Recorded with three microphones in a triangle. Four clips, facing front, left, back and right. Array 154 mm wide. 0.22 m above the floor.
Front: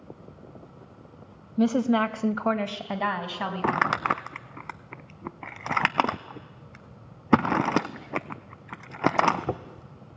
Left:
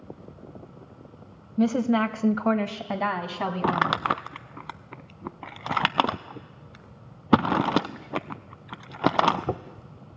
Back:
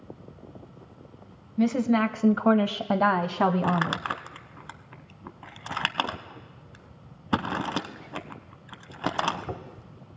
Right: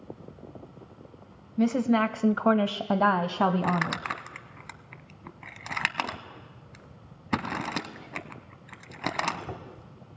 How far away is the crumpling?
About 0.6 m.